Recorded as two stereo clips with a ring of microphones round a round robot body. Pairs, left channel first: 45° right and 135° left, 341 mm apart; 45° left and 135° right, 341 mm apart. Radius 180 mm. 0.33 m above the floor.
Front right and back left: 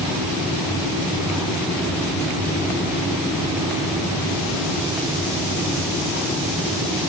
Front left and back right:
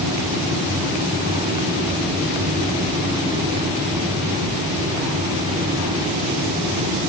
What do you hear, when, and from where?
Only background noise.